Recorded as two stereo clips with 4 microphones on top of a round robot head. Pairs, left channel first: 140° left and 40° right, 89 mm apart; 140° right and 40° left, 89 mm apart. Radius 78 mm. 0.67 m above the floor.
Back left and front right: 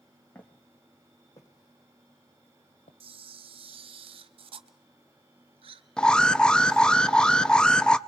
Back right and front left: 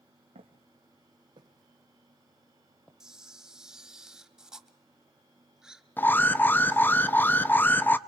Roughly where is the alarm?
Behind right.